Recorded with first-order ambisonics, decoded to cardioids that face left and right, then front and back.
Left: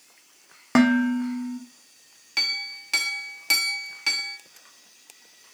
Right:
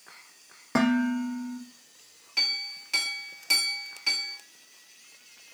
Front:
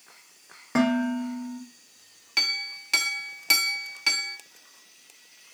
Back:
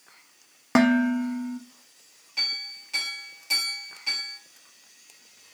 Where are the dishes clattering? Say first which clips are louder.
Left 5 dB, back 3 dB; 140° left, 0.5 m.